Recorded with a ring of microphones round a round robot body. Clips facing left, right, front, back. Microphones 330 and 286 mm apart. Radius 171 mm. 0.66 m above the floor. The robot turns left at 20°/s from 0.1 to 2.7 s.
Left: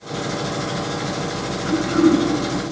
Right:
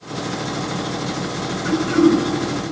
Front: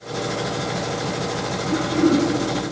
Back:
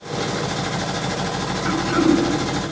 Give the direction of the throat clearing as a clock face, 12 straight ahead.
5 o'clock.